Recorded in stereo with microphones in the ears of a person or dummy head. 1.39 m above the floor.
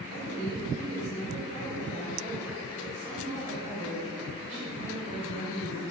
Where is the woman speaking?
45° right (ahead or behind), 5.5 m.